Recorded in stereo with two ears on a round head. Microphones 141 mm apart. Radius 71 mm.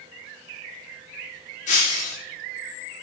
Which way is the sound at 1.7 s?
45° left (ahead or behind).